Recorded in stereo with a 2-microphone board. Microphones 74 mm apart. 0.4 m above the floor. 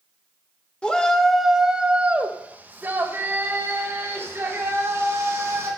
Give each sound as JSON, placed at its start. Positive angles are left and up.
{"t": 0.8, "sound": "a shout", "side_deg": 15, "distance_m": 0.8}